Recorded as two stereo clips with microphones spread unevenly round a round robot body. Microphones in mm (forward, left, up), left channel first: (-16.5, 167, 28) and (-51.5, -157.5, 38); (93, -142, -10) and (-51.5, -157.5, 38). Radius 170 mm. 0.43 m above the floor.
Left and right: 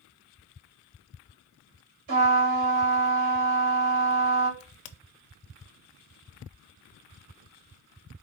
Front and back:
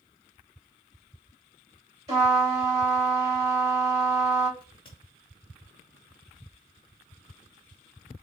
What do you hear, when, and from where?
2.1 s a trumpet: 100° right, 2.5 m
4.6 s a crack: 70° left, 0.5 m